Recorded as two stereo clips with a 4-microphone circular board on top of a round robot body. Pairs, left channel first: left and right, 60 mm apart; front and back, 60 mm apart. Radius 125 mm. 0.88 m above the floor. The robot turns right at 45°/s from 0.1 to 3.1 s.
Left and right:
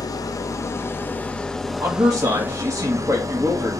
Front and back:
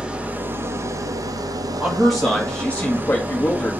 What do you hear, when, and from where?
0.0 s an engine running: 105° left, 0.9 m; by 3.8 s 120° right, 0.9 m
1.8 s a man speaking: 110° right, 1.7 m; by 3.8 s 55° right, 1.7 m